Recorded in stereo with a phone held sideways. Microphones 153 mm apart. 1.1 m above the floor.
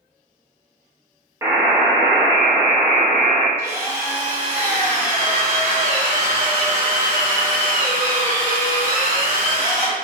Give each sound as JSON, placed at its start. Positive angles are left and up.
{"t": 1.4, "sound": "a buzzer", "side_deg": -20, "distance_m": 0.9}
{"t": 3.6, "sound": "a drill", "side_deg": -15, "distance_m": 1.2}